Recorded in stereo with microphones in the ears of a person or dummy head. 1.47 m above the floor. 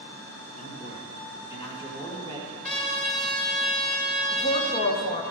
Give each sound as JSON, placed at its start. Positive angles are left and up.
{"t": 0.6, "sound": "a man speaking", "side_deg": 45, "distance_m": 1.3}
{"t": 2.6, "sound": "a trumpet", "side_deg": 35, "distance_m": 3.0}
{"t": 4.3, "sound": "a woman speaking", "side_deg": 45, "distance_m": 1.3}